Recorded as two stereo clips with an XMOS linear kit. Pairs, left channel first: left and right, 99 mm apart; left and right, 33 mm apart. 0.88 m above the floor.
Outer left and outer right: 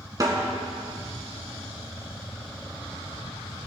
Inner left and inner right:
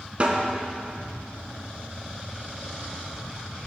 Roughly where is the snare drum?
Right.